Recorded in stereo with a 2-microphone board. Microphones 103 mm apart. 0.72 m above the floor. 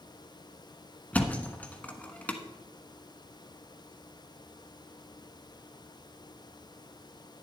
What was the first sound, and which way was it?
A thud, 15° left (ahead or behind).